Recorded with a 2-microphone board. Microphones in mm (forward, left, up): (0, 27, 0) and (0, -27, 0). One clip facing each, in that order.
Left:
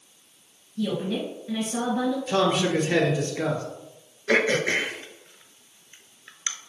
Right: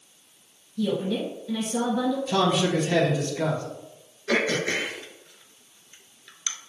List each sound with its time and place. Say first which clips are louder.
0.8 s a woman speaking: right 1 dB; 30° left (ahead or behind), 1.3 m
2.3 s a man speaking: left 1 dB; 30° left (ahead or behind), 1.3 m
4.3 s throat clearing: left 3 dB; 30° left (ahead or behind), 0.5 m